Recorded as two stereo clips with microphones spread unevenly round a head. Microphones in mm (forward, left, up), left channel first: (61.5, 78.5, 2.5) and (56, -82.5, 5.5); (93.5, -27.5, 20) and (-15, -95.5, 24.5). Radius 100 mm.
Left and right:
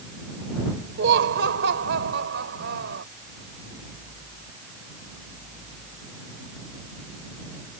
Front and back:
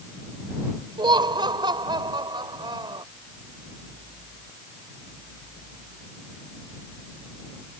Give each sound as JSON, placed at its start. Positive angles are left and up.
{"t": 1.0, "sound": "laughter", "azimuth_deg": -95}